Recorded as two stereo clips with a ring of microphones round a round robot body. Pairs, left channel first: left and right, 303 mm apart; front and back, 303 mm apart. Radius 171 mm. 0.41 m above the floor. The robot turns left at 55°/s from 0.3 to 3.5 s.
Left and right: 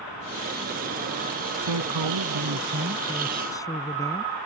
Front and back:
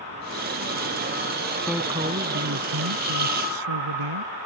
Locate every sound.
1.6 s a man speaking: 85° right; by 4.3 s 170° left